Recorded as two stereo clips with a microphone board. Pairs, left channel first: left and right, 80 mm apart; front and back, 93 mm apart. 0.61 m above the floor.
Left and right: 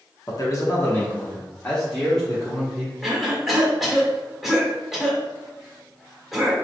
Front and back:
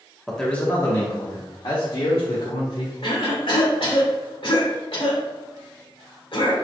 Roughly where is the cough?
Ahead.